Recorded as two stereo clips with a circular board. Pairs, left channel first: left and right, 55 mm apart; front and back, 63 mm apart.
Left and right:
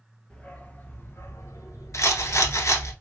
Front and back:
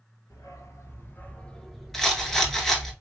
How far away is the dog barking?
About 0.9 m.